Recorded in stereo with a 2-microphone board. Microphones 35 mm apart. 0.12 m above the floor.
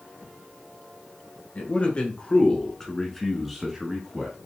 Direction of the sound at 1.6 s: 40° left (ahead or behind).